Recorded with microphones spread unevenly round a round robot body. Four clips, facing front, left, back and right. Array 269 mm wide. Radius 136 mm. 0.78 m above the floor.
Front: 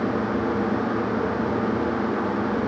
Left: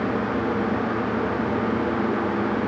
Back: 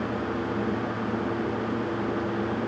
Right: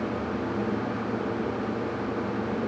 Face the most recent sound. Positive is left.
No sound to turn to.